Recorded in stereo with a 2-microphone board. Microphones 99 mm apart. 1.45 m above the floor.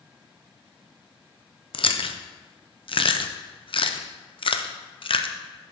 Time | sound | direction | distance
1.7 | chewing | 65° left (ahead or behind) | 0.5 m